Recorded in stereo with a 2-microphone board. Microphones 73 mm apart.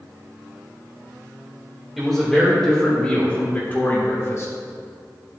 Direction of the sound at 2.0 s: Centre (ahead or behind).